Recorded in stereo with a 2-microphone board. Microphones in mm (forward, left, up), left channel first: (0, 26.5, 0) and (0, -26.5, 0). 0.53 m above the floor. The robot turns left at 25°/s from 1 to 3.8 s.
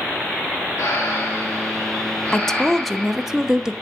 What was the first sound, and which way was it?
Breathing, 60° left.